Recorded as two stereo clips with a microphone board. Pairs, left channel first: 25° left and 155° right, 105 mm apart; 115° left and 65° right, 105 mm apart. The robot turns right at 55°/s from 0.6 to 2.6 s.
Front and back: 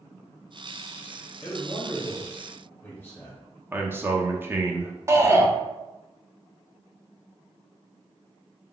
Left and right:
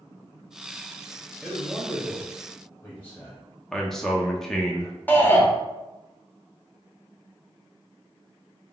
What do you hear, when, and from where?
1.4 s a man speaking: 5° left, 0.9 m; by 3.4 s 70° left, 0.9 m
3.7 s a man speaking: 165° right, 0.6 m
5.1 s a shout: 170° left, 0.7 m